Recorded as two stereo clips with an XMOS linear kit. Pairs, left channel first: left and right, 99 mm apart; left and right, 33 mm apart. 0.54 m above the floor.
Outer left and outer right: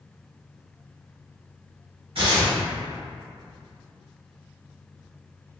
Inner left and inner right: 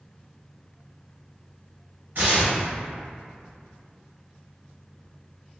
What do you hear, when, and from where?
2.1 s tearing paper: 65° right (ahead or behind), 0.9 m